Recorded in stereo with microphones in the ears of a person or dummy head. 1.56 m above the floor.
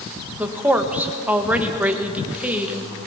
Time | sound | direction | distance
0.4 | a woman speaking | 10° right (ahead or behind) | 1.6 m